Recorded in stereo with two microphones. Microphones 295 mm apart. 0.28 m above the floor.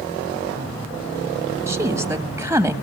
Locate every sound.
1.7 s a woman speaking: 10° right (ahead or behind), 1.4 m